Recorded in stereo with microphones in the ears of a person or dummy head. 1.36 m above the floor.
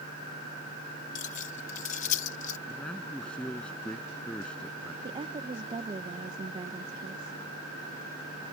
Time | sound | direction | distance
1.1 | keys jangling | 50° left (ahead or behind) | ?
2.7 | a man speaking | 5° left (ahead or behind) | ?
5.0 | a woman speaking | 25° right (ahead or behind) | ?